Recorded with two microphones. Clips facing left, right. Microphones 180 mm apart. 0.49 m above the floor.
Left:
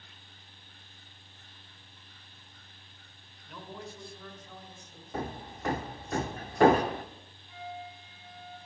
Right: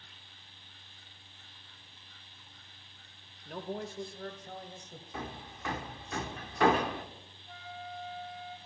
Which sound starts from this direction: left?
Hammering, at 5.1 s.